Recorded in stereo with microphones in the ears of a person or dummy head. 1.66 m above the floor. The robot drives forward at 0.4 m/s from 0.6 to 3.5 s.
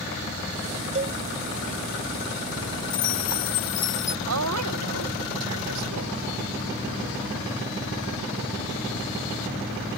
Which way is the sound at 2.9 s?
45° left (ahead or behind).